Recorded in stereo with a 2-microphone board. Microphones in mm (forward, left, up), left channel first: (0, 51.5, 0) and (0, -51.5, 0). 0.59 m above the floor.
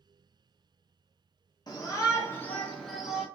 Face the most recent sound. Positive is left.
turn(degrees=-10)  # may be behind; listen again after turning